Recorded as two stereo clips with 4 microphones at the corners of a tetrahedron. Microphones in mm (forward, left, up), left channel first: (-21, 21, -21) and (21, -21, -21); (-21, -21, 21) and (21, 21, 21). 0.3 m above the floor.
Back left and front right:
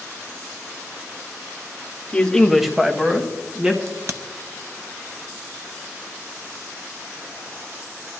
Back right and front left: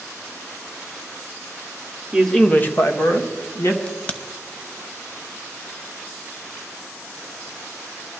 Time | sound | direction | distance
2.1 | a man speaking | 105° left | 0.9 m
3.9 | a crack | 70° right | 0.8 m